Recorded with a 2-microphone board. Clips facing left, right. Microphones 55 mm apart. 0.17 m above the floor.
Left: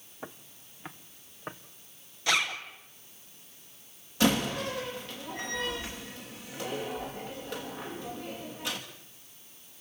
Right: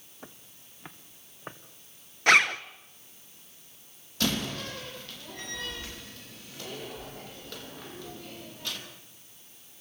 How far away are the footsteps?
About 0.8 m.